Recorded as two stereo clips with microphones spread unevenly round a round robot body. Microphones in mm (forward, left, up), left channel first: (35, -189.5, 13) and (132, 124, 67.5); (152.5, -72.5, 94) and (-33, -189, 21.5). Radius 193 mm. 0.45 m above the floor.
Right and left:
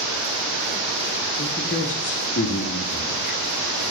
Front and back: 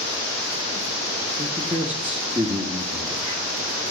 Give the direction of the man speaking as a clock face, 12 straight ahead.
3 o'clock.